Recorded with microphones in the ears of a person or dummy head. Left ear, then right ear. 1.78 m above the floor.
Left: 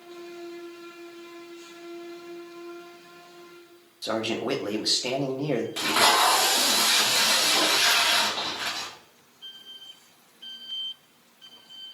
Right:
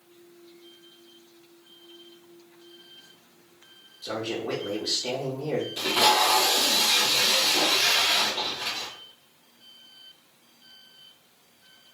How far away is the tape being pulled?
About 1.3 m.